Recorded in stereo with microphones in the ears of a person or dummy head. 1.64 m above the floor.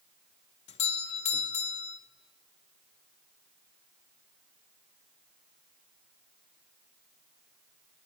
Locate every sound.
0.7 s a doorbell: 35° left (ahead or behind), 0.5 m